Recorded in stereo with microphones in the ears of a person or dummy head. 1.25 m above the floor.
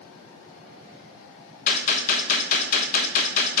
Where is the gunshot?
50° left (ahead or behind), 0.7 m.